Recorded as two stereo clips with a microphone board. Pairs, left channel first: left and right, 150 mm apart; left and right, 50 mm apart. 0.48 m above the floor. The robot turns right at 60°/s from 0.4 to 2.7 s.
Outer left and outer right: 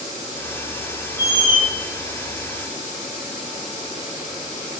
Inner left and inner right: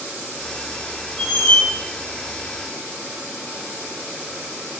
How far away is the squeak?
About 1.2 m.